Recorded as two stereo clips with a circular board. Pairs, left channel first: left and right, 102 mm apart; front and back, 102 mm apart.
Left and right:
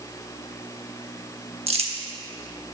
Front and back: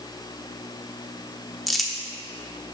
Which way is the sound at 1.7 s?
90° right.